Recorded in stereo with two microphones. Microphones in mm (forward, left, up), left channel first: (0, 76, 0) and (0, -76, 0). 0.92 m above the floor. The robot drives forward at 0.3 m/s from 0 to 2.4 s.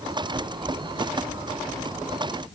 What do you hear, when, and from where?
Only background noise.